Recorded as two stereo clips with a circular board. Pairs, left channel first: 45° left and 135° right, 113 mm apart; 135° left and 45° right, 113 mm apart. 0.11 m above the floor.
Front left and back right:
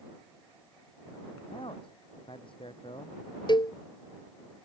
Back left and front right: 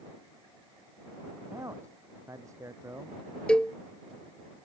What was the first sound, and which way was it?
A man speaking, 15° left.